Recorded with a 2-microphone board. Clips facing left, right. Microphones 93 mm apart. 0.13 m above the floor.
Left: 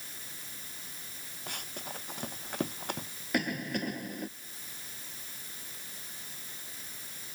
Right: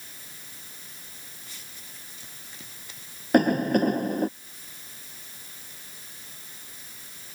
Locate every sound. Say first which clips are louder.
1.5 s running footsteps: left 8 dB; 60° left (ahead or behind)
3.3 s a cough: right 13 dB; 50° right (ahead or behind)